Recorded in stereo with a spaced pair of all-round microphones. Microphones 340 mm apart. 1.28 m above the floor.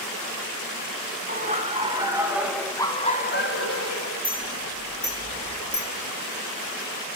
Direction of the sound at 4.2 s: Centre (ahead or behind).